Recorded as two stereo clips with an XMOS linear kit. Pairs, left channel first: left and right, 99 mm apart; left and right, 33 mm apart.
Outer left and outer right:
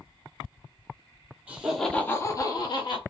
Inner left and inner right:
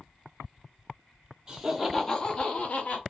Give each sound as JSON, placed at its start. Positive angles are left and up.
{"t": 1.5, "sound": "laughter", "side_deg": -15, "distance_m": 0.8}